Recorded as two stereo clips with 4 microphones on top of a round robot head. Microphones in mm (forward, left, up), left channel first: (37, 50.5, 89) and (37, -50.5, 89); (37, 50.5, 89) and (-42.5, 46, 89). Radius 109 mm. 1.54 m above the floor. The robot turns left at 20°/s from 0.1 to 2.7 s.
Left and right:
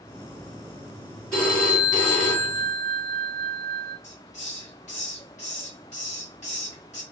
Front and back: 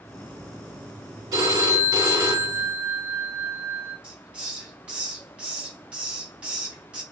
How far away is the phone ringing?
About 1.9 m.